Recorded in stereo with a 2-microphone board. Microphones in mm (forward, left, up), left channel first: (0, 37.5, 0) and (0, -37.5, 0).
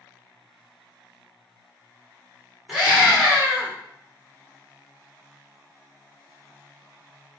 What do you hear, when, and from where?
2.7 s a scream: 5° right (ahead or behind), 1.0 m